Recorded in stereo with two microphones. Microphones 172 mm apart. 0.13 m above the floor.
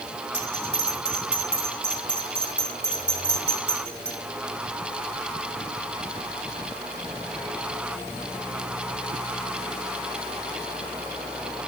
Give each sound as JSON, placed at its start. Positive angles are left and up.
{"t": 0.3, "sound": "a bell", "side_deg": 15, "distance_m": 4.0}